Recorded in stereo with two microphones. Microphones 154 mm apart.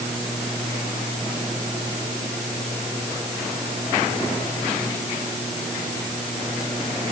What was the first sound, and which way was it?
Only background noise.